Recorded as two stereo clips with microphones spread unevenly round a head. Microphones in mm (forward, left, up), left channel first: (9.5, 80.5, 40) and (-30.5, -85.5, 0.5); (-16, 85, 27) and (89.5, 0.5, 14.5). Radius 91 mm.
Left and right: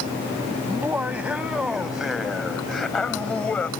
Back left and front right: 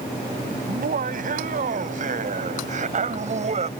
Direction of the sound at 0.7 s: 20° right.